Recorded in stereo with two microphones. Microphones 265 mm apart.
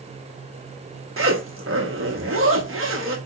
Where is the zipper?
55° right (ahead or behind), 0.9 m.